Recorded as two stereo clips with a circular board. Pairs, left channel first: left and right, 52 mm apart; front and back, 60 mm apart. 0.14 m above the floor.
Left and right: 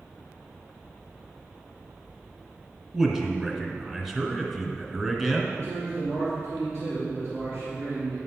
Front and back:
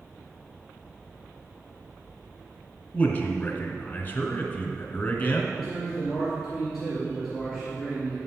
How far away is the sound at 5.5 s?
About 3 m.